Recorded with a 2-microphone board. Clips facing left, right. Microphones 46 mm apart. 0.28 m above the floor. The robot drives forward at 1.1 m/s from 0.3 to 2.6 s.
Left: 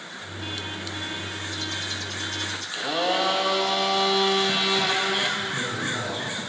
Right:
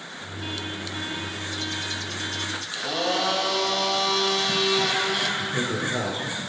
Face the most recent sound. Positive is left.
turn(degrees=-40)  # may be behind; listen again after turning